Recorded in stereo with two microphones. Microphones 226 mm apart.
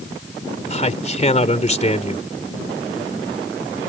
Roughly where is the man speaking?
Left.